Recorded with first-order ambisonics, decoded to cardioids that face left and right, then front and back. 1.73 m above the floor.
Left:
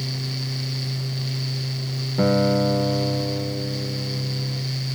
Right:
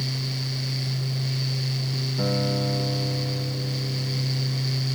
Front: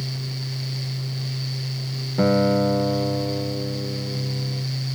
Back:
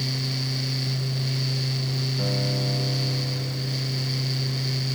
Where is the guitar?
30° left, 0.7 m.